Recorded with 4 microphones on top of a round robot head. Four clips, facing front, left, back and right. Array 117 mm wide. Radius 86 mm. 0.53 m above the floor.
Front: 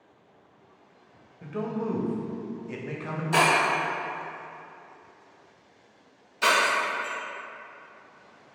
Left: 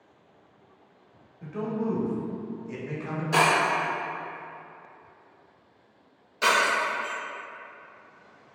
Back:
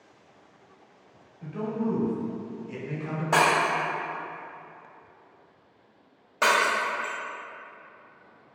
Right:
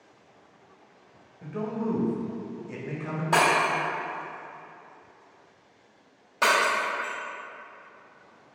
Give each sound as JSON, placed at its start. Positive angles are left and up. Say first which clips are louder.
{"t": 1.4, "sound": "a man speaking", "louder": "left 1 dB, back 1 dB", "azimuth_deg": -20, "distance_m": 0.8}
{"t": 3.3, "sound": "breaking glass", "louder": "even, even", "azimuth_deg": -145, "distance_m": 1.5}